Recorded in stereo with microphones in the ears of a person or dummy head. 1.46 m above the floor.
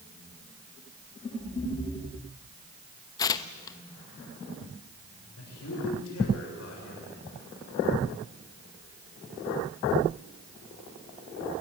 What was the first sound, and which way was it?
Tearing paper, 20° left (ahead or behind).